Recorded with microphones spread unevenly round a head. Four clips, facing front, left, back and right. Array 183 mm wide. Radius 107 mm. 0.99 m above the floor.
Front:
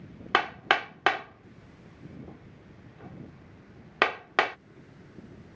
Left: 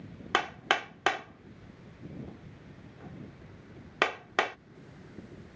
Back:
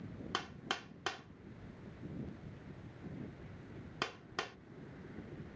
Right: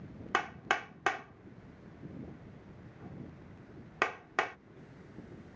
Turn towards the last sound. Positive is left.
turn(degrees=25)